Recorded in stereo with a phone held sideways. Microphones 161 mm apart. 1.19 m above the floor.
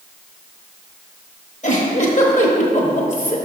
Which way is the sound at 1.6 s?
50° left (ahead or behind).